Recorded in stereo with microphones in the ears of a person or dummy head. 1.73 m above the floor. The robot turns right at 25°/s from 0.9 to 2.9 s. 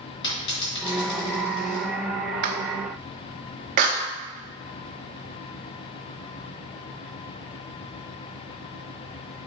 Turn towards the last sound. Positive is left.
turn(degrees=-50)  # may be behind; listen again after turning